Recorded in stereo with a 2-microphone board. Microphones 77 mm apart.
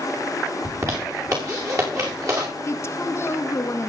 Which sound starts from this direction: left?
A woman speaking, at 2.6 s.